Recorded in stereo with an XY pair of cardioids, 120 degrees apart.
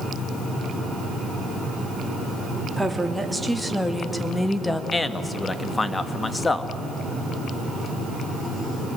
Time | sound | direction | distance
2.8 | a woman speaking | 5° right | 3 m
4.9 | a man speaking | 20° left | 1.6 m